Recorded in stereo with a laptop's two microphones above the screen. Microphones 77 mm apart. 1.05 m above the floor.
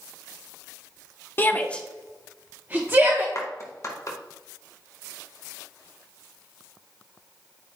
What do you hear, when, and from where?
1.4 s a shout: 30° left (ahead or behind), 0.8 m; by 3.2 s 35° right (ahead or behind), 1.2 m
3.4 s a clap: 45° left (ahead or behind), 0.9 m